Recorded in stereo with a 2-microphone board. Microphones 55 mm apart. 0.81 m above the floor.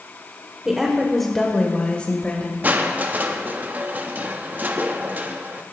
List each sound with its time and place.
0.7 s a woman speaking: 10° right (ahead or behind), 2 m; by 2.5 s 30° left (ahead or behind), 3 m
2.6 s crushing: 30° right (ahead or behind), 0.8 m